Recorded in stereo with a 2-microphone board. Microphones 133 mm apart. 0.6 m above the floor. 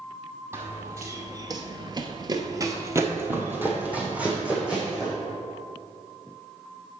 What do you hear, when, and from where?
0.5 s running footsteps: 20° right (ahead or behind), 1.2 m; by 5.2 s 5° right (ahead or behind), 2 m